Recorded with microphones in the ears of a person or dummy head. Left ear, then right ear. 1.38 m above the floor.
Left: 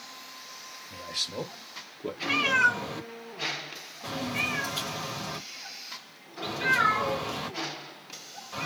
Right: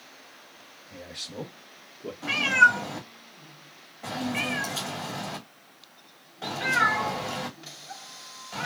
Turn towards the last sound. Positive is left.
turn(degrees=-25)  # may be behind; listen again after turning